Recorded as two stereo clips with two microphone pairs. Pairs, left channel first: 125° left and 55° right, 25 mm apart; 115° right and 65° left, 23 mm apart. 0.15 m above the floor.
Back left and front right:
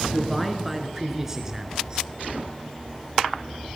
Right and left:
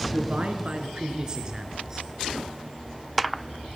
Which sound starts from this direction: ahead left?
A man speaking, at 0.1 s.